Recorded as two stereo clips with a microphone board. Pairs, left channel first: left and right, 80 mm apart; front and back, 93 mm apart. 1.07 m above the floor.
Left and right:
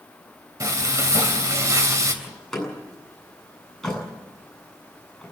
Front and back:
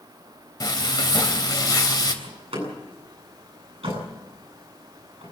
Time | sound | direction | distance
0.6 | frying | 45° right | 3.5 m
2.2 | a door slam | 175° left | 8.5 m